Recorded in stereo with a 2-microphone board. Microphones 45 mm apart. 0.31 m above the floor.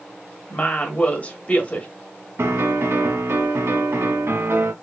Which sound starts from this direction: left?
A woman speaking, at 0.5 s.